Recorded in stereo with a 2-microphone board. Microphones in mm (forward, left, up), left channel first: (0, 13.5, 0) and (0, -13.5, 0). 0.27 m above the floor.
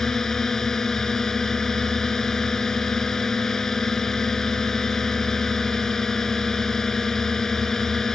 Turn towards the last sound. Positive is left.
turn(degrees=20)  # may be behind; listen again after turning